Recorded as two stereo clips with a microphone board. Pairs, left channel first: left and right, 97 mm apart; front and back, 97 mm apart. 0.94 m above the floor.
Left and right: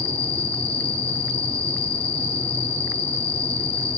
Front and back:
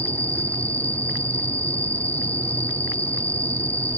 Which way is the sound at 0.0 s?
75° left.